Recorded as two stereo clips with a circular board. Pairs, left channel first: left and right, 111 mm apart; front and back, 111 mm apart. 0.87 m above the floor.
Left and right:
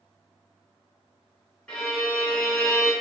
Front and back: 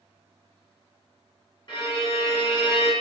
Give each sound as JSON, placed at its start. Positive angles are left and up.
{"t": 1.7, "sound": "a violin", "azimuth_deg": 5, "distance_m": 1.1}